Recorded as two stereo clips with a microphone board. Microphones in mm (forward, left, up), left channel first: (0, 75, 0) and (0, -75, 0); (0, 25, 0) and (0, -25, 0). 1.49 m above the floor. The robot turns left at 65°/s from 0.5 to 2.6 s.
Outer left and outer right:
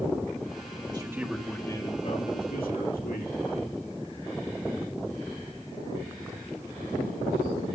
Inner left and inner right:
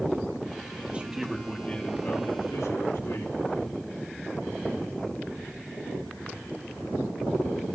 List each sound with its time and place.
0.9 s a man speaking: 150° right, 2.5 m; by 3.8 s 100° left, 2.5 m